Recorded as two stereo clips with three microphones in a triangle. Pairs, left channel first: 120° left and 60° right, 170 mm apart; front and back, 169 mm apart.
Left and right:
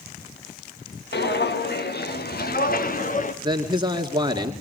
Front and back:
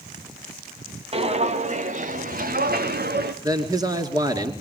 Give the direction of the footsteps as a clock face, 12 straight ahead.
8 o'clock.